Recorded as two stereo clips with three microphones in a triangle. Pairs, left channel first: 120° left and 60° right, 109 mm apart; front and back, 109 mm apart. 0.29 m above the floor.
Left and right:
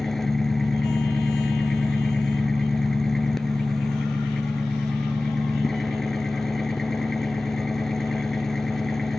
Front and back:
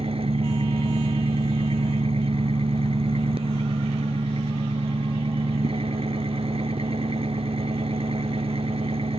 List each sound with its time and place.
0.0 s an engine running: 155° right